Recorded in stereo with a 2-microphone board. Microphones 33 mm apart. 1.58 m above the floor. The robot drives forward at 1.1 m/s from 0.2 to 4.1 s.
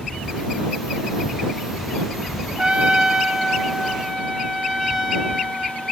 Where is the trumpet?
30° right (ahead or behind), 0.9 m; by 5.9 s 15° right (ahead or behind), 1.7 m.